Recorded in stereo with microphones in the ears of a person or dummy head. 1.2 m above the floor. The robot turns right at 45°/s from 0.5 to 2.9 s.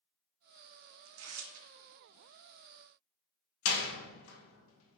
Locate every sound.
1.1 s tearing paper: 70° right (ahead or behind), 0.5 m; by 1.7 s 75° right (ahead or behind), 0.5 m
3.6 s a door slam: 75° left (ahead or behind), 0.7 m